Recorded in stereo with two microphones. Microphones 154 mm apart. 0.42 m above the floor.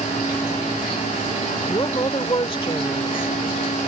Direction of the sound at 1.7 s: 35° left (ahead or behind).